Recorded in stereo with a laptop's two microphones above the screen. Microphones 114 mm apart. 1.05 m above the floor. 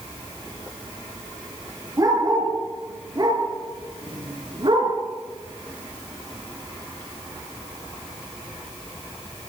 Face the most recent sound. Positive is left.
turn(degrees=-50)  # may be behind; listen again after turning